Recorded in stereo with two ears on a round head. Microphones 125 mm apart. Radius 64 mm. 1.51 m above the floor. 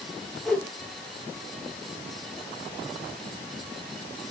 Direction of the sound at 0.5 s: 5° left (ahead or behind).